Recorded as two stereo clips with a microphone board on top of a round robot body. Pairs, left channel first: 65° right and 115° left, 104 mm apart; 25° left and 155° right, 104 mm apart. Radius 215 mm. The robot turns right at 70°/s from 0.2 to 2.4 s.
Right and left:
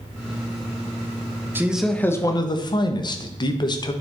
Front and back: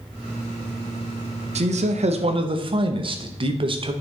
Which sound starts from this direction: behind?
A man speaking, at 1.6 s.